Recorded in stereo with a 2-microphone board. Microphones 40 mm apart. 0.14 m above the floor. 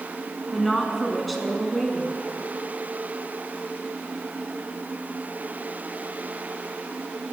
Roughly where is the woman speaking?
Centre.